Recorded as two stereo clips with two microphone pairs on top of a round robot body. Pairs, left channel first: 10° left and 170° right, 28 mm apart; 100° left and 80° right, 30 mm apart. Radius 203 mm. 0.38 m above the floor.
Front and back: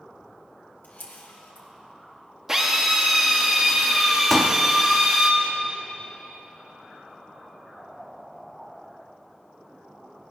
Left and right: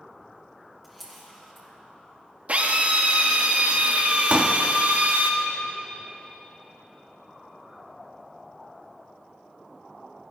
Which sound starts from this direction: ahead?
A camera shutter, at 0.8 s.